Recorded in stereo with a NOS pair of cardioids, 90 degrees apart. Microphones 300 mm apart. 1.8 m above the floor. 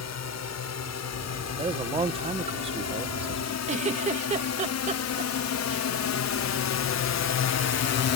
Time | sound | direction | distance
0.0 | a drone | 60° left | ?
1.6 | a man speaking | 20° right | ?
3.7 | a giggle | 25° right | ?